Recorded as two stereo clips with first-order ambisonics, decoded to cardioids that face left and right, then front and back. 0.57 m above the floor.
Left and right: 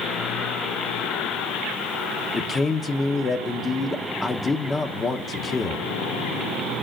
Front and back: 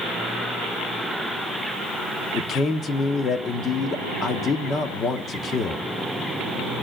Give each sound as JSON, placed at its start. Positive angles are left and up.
{"t": 2.3, "sound": "a man speaking", "azimuth_deg": 30, "distance_m": 0.8}